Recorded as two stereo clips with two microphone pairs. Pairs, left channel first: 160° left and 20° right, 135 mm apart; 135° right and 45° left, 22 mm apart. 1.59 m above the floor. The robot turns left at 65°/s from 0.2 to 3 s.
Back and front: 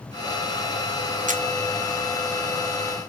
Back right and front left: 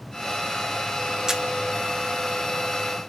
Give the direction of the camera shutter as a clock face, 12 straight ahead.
1 o'clock.